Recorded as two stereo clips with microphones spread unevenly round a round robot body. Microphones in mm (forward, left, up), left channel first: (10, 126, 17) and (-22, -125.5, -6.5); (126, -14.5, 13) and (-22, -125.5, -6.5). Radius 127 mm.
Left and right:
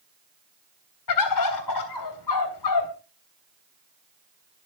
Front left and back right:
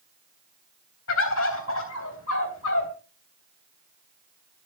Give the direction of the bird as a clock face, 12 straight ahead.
10 o'clock.